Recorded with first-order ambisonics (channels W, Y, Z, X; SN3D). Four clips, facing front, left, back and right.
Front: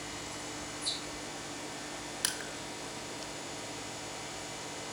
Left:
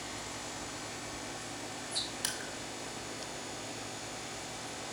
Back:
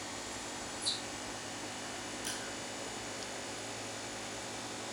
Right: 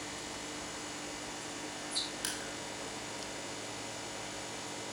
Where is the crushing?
5° left, 1.3 m.